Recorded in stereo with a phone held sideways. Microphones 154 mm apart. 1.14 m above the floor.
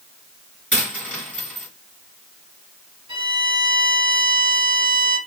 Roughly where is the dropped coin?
Centre.